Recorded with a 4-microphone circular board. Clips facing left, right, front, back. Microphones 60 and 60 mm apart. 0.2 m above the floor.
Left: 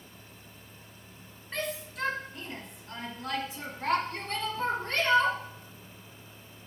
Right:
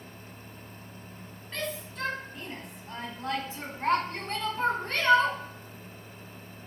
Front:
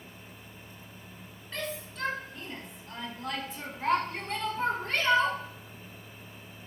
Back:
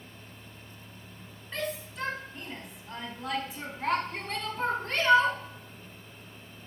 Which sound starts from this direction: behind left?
A shout, at 1.5 s.